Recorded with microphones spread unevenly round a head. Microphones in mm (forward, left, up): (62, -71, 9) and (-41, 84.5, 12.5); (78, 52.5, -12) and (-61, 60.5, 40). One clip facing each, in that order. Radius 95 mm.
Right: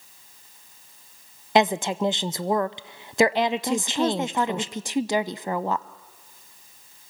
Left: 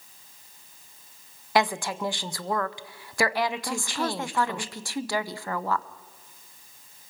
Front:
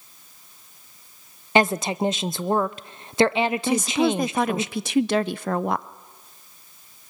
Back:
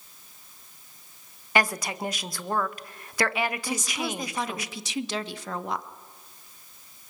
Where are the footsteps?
I don't hear footsteps.